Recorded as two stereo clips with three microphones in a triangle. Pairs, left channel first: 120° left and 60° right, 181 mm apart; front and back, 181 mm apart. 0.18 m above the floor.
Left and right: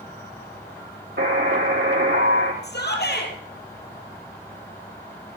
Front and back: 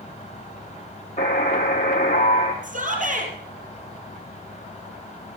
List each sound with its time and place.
1.2 s a buzzer: 50° right, 3 m
2.6 s a shout: 140° left, 4 m